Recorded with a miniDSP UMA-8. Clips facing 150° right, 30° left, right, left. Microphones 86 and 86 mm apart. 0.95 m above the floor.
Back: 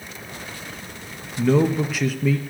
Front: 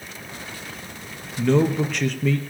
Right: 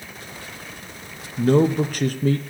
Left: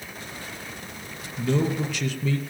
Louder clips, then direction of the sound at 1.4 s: Back 1 dB, right 7 dB; 70° right.